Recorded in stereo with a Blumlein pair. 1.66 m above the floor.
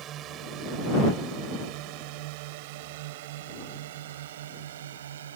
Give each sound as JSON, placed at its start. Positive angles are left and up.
{"t": 0.0, "sound": "a drone", "azimuth_deg": -30}